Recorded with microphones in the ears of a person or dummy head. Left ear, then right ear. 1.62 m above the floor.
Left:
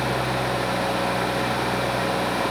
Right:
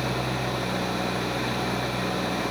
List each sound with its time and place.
0.0 s an engine running: 10° left (ahead or behind)